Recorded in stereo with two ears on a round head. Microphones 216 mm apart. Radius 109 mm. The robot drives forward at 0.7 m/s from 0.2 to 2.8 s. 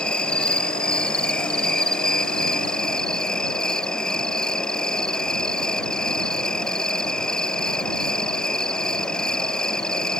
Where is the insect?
5° left (ahead or behind).